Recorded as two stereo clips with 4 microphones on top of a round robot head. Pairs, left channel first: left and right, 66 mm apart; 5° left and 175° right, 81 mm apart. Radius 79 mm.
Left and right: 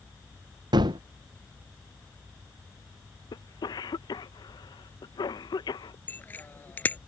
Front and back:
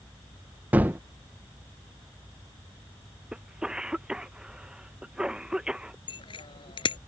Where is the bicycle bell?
25° left.